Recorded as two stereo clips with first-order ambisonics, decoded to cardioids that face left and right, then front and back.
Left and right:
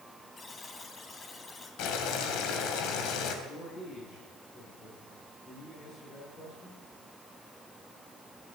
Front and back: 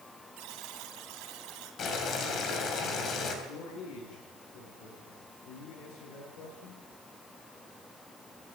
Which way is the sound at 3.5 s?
25° left.